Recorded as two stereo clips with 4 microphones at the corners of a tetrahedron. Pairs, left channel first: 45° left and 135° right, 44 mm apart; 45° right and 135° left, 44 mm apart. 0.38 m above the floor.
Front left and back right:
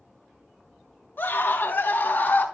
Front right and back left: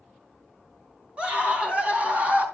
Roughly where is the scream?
Left.